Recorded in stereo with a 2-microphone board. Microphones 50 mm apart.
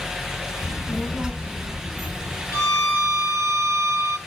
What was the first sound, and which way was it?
A child speaking, 20° left (ahead or behind).